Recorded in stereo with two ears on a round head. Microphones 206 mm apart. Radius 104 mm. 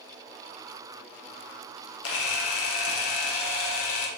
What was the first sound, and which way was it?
A camera shutter, 65° left (ahead or behind).